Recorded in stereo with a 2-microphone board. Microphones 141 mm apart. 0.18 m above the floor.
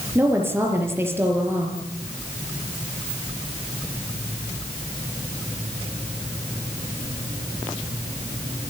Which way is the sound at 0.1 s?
15° right (ahead or behind).